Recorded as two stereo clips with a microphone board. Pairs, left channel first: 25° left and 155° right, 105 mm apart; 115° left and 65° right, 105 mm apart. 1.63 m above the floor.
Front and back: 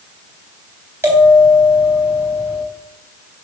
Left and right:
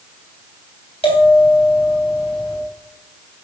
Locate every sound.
1.0 s a bell: 135° left, 3.5 m